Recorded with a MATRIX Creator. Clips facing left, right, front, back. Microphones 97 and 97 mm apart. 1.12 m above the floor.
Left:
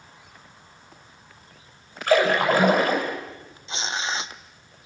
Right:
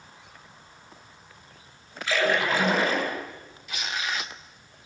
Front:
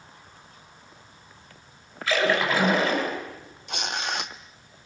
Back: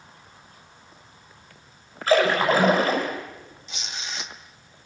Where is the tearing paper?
25° left, 1.1 m.